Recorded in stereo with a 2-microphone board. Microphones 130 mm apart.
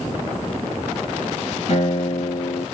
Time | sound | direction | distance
1.7 | a guitar | 60° left (ahead or behind) | 1.1 m